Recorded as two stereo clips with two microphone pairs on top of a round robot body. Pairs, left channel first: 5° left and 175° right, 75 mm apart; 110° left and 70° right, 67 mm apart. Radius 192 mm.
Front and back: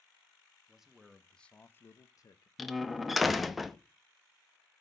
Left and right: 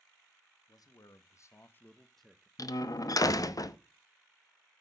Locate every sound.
0.7 s a man speaking: 105° left, 1.3 m; by 2.5 s 10° left, 0.9 m
2.6 s a door slam: 100° left, 0.9 m